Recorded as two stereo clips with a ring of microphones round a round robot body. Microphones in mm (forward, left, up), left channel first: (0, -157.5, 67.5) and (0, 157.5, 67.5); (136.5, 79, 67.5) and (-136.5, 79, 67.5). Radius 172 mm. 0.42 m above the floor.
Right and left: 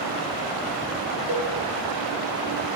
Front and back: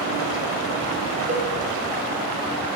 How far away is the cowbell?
About 2.5 m.